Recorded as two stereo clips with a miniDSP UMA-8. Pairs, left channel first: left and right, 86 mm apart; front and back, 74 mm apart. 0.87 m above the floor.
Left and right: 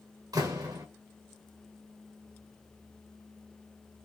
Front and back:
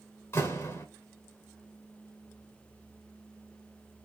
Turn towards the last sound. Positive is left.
turn(degrees=-50)